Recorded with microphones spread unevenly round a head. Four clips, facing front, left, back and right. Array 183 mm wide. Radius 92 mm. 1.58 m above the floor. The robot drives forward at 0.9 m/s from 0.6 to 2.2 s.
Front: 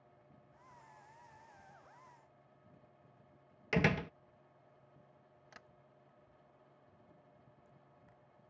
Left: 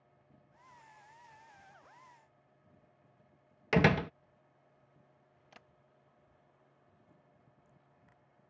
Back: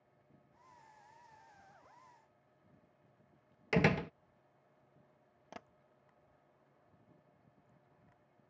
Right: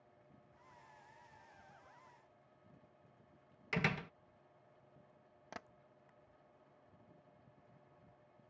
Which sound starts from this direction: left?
A door slam, at 3.7 s.